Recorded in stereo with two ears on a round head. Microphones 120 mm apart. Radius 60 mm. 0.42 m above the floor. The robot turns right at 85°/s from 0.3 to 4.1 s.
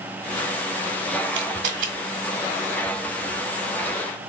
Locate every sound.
1.3 s a camera shutter: 50° right (ahead or behind), 1.2 m; by 1.9 s 65° right (ahead or behind), 1.2 m